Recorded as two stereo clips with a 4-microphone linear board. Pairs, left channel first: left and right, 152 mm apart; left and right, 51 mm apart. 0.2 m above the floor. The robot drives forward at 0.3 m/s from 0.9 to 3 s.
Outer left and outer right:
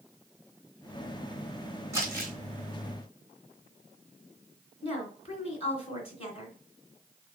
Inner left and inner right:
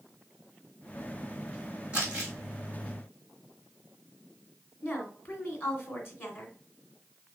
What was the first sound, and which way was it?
Crumpling, 20° right (ahead or behind).